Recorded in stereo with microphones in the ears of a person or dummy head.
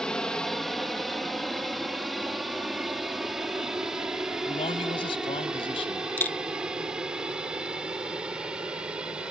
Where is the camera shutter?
5° left (ahead or behind).